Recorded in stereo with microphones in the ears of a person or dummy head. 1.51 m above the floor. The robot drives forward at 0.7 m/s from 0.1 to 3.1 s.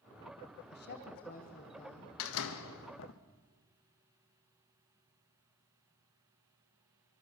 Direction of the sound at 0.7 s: 55° left (ahead or behind).